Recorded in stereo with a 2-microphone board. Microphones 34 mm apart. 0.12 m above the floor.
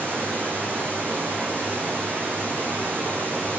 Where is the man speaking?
No man speaking in this recording.